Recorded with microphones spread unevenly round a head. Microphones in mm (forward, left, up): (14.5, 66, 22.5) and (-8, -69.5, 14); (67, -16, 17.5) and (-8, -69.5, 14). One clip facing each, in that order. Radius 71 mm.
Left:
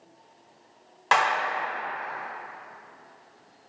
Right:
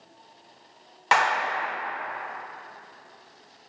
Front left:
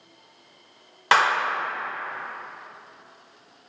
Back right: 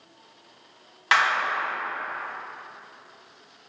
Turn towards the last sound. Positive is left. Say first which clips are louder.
# right 1 dB, front left 2 dB
turn(degrees=-15)